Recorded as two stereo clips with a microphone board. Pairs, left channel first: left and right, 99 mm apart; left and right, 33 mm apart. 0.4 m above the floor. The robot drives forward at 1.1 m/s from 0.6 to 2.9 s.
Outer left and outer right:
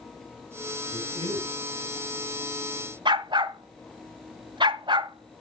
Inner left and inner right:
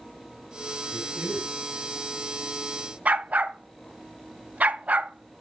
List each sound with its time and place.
0.9 s a man speaking: 65° right (ahead or behind), 4 m; by 1.6 s 75° right (ahead or behind), 3.5 m
3.0 s a dog barking: 50° right (ahead or behind), 0.8 m